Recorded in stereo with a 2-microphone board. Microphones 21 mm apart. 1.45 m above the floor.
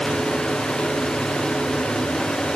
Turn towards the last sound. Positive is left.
No sound to turn to.